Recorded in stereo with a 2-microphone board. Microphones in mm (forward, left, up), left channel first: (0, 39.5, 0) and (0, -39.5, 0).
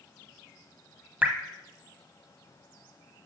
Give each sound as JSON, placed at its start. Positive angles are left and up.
{"t": 1.2, "sound": "dripping", "side_deg": -20, "distance_m": 1.0}